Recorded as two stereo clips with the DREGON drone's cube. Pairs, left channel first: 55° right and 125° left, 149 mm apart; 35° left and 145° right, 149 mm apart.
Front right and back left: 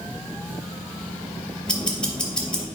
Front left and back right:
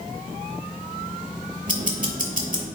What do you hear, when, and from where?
1.7 s ticking: 140° right, 2.5 m